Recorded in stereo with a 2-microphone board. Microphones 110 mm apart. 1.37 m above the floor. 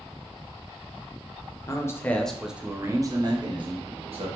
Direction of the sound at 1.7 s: 30° left (ahead or behind).